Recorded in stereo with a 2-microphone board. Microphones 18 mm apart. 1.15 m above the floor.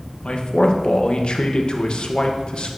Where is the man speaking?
55° left (ahead or behind), 0.9 m.